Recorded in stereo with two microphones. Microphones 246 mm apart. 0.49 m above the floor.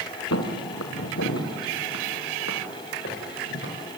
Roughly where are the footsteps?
Left.